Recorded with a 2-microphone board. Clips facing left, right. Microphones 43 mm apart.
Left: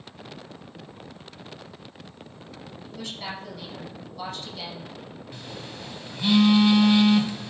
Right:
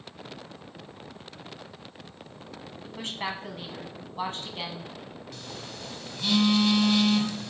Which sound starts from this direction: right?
A woman speaking, at 2.8 s.